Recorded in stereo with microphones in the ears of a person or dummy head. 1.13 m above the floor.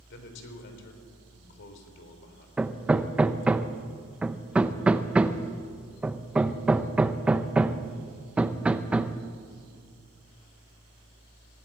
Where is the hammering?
5° right (ahead or behind), 0.7 m.